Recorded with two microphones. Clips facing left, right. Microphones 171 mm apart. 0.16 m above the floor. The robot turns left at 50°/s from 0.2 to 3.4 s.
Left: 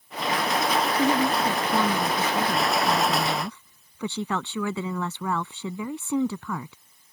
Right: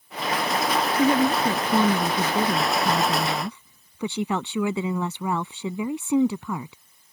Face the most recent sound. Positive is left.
turn(degrees=-15)  # may be behind; listen again after turning